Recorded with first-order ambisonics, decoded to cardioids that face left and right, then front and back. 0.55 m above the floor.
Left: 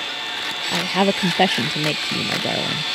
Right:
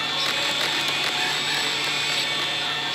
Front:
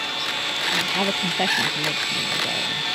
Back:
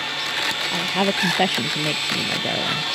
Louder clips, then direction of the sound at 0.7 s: Left 3 dB, even; 105° left.